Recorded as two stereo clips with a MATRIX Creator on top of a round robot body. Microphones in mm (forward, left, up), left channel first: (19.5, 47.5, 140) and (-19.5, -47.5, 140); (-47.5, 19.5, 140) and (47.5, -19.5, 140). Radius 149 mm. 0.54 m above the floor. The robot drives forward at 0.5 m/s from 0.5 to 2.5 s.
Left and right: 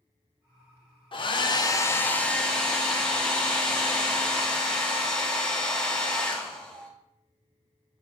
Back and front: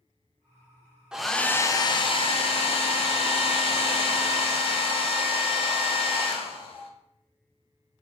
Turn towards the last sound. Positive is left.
turn(degrees=150)